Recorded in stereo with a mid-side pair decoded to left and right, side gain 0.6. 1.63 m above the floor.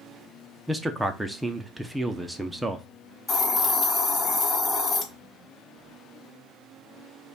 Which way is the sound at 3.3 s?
30° left.